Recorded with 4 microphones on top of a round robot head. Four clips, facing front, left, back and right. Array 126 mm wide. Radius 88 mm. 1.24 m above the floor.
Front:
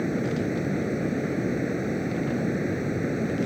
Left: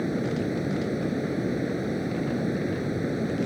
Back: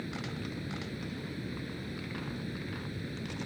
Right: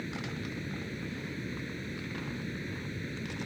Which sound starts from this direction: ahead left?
Running water, at 0.0 s.